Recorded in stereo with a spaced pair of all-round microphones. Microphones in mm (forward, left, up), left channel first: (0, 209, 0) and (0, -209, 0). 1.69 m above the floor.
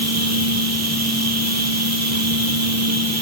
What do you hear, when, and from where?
0.0 s a machine running: 35° right (ahead or behind), 0.8 m